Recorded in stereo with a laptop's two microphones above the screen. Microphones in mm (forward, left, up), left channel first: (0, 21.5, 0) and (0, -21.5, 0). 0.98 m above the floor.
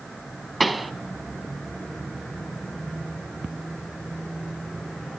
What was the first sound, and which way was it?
A pop, centre (ahead or behind).